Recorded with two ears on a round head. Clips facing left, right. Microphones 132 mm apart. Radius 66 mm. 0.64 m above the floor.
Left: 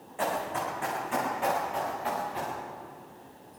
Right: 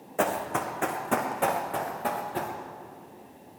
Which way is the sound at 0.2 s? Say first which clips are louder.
Right 3 dB; 75° right (ahead or behind).